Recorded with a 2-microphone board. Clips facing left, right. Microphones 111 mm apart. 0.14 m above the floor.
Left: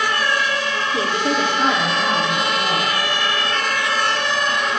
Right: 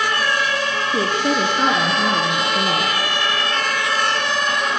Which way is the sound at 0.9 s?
45° right (ahead or behind).